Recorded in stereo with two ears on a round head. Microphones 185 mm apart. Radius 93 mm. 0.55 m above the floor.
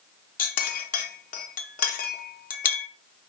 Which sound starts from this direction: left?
A clink, at 0.4 s.